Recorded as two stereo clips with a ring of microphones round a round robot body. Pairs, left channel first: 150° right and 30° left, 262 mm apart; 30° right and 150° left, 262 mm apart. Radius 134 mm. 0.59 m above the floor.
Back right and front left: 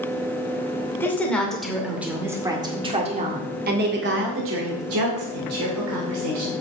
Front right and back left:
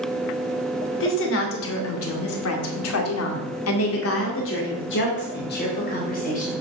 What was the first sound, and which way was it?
A woman speaking, 70° right.